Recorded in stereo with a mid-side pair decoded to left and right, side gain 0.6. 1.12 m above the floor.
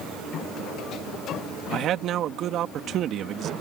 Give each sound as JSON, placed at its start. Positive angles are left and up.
{"t": 1.7, "sound": "a man speaking", "azimuth_deg": -55}